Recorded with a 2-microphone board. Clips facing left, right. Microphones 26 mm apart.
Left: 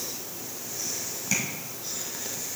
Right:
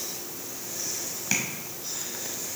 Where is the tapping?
25° right (ahead or behind), 1.7 m.